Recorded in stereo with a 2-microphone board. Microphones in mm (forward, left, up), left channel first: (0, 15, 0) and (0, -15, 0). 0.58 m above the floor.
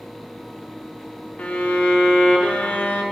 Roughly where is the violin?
Left.